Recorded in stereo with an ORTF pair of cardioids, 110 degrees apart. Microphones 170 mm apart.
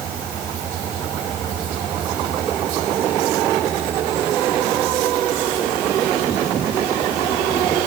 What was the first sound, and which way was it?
Only background noise.